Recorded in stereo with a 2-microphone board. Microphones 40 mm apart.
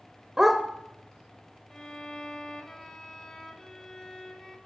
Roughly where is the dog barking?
Centre.